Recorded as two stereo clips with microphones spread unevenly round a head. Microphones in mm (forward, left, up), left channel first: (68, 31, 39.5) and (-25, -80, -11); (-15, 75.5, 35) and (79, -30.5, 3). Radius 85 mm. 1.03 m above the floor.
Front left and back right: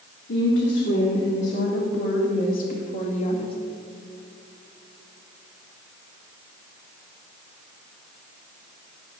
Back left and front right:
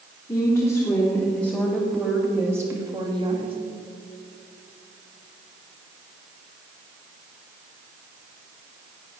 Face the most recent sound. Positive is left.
turn(degrees=-5)